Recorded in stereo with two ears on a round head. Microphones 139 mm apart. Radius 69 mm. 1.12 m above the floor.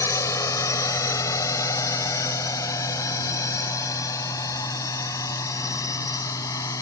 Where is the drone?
20° left (ahead or behind).